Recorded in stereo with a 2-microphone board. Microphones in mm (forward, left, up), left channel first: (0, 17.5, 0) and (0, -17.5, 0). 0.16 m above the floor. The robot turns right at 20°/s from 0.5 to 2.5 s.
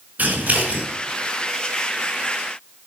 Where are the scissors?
50° right (ahead or behind), 5 m; by 0.8 s 45° right (ahead or behind), 5 m.